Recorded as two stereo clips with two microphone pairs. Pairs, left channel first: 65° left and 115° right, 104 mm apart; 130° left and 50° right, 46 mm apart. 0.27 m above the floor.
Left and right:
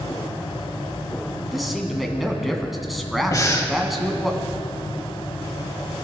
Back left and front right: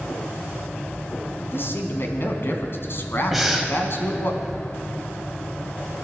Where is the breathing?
40° left, 1.6 m.